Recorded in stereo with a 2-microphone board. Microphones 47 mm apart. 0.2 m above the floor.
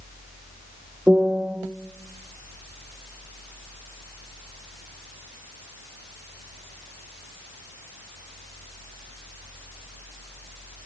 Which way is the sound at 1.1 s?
30° right (ahead or behind).